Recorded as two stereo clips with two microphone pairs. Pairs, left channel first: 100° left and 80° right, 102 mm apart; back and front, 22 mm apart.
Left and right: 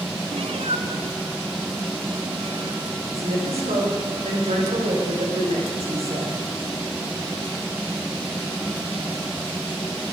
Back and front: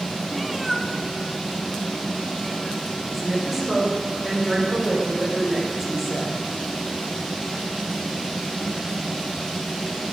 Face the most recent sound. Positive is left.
turn(degrees=-75)